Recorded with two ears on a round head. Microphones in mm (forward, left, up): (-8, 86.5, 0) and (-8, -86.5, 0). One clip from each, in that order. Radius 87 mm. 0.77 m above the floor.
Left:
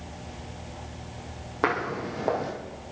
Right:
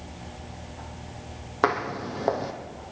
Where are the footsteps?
25° right (ahead or behind), 1.9 m.